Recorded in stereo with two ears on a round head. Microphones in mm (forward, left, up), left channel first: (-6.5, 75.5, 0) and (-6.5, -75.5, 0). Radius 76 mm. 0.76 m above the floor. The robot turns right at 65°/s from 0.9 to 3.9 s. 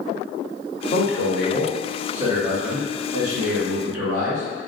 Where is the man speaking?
110° left, 1.1 m; by 4.4 s 55° right, 1.1 m.